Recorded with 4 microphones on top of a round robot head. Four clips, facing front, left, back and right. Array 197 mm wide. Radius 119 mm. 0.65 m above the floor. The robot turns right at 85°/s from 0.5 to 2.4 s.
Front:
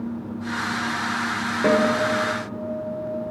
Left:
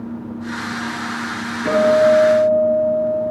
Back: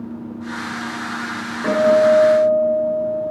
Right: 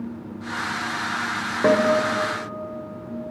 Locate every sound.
1.6 s a guitar: 60° right, 2 m; by 3.3 s 5° left, 2 m